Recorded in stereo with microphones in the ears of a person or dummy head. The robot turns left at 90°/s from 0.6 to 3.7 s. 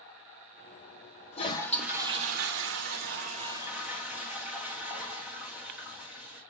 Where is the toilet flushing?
40° left, 3.5 m; by 6.4 s 170° right, 3.5 m.